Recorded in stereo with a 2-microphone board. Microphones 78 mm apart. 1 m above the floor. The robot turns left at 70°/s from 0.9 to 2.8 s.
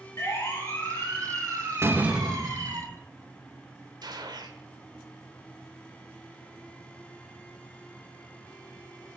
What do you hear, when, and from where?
0.2 s a siren: 35° left (ahead or behind), 7.5 m; by 2.8 s 85° right, 11.5 m
1.8 s a door slam: 145° right, 0.8 m; by 3.0 s 145° left, 0.8 m
4.0 s a gunshot: 65° right (ahead or behind), 1.5 m